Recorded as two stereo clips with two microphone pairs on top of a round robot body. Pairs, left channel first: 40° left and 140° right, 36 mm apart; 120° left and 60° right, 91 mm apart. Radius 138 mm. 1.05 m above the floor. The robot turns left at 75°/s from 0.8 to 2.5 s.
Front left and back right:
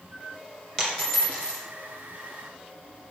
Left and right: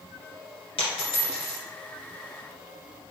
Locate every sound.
0.8 s a dropped coin: 115° left, 1.7 m; by 1.6 s 55° left, 1.7 m